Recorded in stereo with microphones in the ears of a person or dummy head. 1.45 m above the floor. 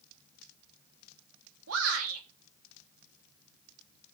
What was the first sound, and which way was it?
A shout, 85° right.